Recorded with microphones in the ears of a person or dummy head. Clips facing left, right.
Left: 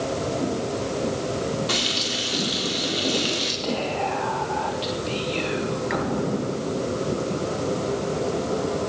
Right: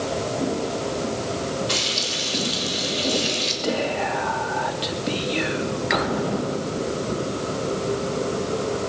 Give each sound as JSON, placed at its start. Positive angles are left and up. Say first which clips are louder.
{"t": 1.7, "sound": "frying", "louder": "even", "side_deg": 60, "distance_m": 4.0}
{"t": 3.6, "sound": "whispering", "louder": "right 2 dB", "side_deg": -15, "distance_m": 3.0}